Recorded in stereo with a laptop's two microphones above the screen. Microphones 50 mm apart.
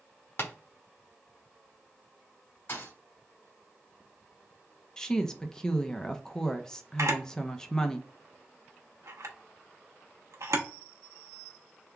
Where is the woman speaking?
15° left (ahead or behind), 0.6 m.